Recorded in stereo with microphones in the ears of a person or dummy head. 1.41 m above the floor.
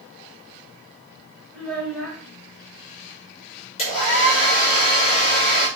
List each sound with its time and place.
1.5 s a child speaking: 5° left (ahead or behind), 3.5 m
3.8 s a hair dryer: 30° left (ahead or behind), 5.5 m